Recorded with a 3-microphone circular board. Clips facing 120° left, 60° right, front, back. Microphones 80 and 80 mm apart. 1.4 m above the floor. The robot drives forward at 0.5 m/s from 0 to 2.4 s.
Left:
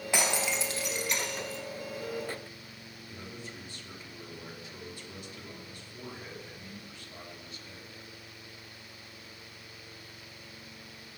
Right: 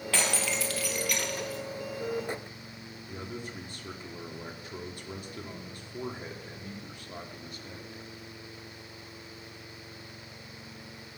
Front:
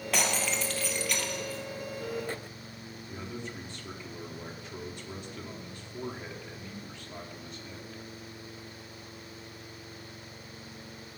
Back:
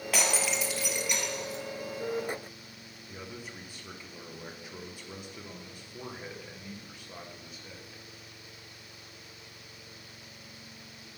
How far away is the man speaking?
About 1.4 m.